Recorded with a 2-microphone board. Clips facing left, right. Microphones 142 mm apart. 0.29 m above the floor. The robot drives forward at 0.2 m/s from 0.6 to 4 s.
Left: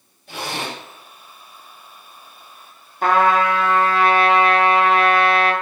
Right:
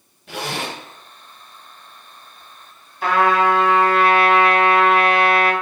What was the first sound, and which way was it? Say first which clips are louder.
A zipper: right 1 dB; 70° right (ahead or behind).